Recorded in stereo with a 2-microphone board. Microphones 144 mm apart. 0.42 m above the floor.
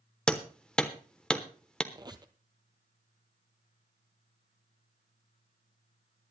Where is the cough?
I don't hear a cough.